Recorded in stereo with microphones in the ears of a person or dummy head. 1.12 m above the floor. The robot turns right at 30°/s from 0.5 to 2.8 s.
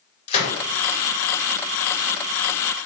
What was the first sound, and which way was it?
A gunshot, 40° left (ahead or behind).